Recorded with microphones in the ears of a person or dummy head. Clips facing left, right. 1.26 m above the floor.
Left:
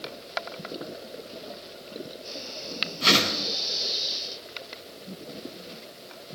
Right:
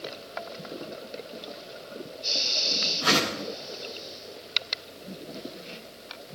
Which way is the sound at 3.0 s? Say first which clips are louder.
Left 1 dB; 35° left (ahead or behind).